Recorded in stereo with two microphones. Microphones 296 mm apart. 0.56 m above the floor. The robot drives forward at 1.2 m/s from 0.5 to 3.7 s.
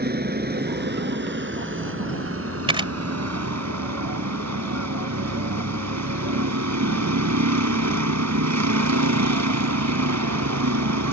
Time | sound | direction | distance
0.0 | a vehicle | 35° right (ahead or behind) | ?
2.7 | a camera shutter | 15° right (ahead or behind) | ?